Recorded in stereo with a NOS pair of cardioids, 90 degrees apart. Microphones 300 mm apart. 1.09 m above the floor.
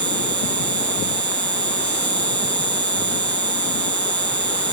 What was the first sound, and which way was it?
An insect, 60° right.